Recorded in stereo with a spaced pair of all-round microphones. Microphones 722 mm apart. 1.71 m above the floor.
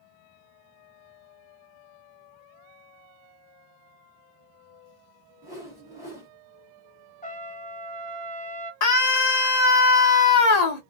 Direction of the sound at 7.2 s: 10° left (ahead or behind).